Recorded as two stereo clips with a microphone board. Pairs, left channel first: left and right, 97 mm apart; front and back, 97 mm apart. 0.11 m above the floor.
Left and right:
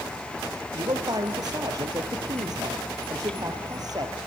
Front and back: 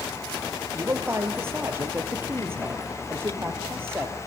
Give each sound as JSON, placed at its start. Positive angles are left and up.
{"t": 0.7, "sound": "a man speaking", "azimuth_deg": -120, "distance_m": 3.0}